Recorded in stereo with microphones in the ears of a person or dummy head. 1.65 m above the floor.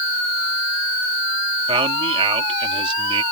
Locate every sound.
1.7 s a man speaking: 25° right (ahead or behind)